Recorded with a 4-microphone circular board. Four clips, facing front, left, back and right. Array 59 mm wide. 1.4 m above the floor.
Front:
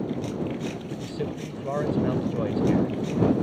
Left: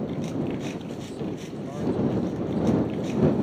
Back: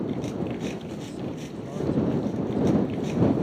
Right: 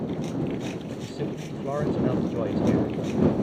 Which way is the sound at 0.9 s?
40° right.